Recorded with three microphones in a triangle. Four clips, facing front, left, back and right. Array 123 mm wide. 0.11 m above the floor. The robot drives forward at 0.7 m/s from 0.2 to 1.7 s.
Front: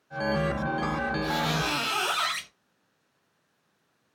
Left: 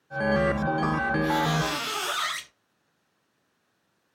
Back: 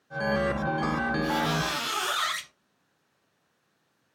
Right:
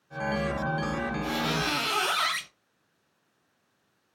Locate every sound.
1.2 s a squeak: 40° right, 0.9 m; by 2.5 s 60° right, 0.7 m